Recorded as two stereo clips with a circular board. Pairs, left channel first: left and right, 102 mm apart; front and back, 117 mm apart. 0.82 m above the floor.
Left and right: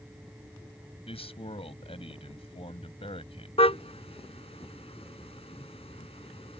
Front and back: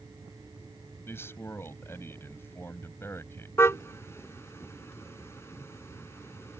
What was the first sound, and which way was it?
A man speaking, 70° left.